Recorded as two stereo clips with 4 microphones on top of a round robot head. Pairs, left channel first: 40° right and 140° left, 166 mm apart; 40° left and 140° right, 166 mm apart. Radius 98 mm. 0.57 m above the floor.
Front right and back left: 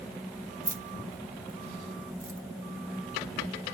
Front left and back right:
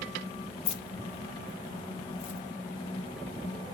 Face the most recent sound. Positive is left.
turn(degrees=75)